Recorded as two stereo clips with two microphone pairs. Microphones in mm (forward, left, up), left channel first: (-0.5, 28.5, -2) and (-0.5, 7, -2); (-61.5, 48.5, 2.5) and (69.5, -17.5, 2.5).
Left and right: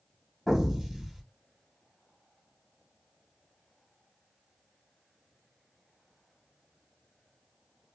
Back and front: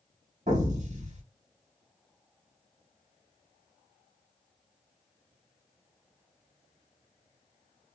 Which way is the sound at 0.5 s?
20° right.